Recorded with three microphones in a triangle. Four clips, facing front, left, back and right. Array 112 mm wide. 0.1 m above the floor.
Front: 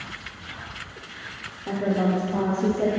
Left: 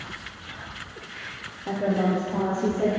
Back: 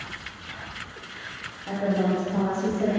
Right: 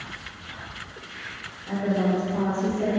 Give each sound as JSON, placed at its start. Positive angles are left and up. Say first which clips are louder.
{"t": 1.7, "sound": "a woman speaking", "louder": "even, front 1 dB", "azimuth_deg": 55, "distance_m": 2.5}